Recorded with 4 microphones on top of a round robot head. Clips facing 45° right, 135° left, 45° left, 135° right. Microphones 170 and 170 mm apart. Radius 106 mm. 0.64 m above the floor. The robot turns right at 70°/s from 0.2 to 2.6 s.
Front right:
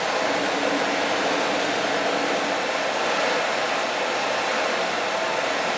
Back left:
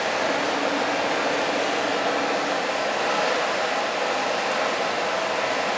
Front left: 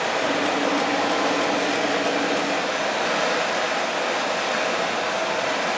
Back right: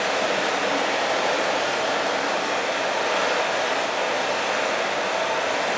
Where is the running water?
135° right, 0.9 m; by 5.8 s 30° left, 0.9 m.